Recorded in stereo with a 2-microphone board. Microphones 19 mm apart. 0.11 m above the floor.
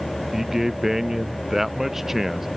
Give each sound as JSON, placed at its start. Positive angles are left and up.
{"t": 0.3, "sound": "a man speaking", "side_deg": -20}